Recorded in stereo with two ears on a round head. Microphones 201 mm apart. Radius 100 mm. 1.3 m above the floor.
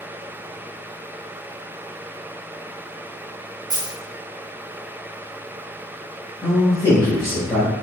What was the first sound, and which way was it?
A dropped coin, 15° right (ahead or behind).